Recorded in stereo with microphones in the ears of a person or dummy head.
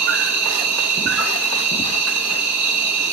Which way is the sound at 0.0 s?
70° right (ahead or behind).